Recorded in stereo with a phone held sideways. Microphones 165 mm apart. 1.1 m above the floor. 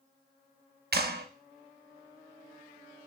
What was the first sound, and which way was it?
A clap, 75° right (ahead or behind).